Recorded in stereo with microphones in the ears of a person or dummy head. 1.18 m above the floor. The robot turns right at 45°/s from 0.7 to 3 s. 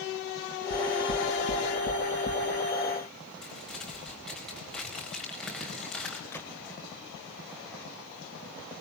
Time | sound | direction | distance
0.7 | knocking | 80° left | 1.5 m
3.4 | crumpling | centre (ahead or behind) | 4 m
6.3 | a gunshot | 10° left (ahead or behind) | 1.7 m